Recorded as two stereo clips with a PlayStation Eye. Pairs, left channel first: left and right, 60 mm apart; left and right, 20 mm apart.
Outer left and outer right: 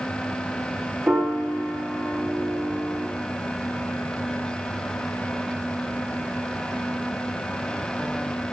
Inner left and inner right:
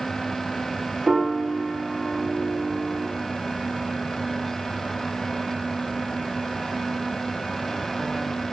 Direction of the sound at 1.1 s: 30° right (ahead or behind).